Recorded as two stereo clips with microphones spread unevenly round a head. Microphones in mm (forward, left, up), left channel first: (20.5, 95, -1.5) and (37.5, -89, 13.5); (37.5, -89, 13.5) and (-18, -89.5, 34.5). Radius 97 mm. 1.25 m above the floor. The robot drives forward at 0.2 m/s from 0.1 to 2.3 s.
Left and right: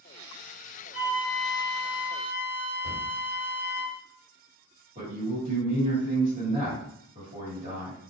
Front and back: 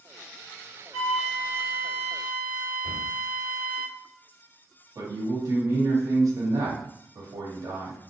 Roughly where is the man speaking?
Behind right.